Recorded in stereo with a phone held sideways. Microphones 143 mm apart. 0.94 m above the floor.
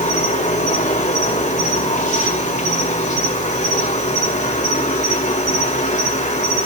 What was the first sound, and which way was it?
An insect, 55° left (ahead or behind).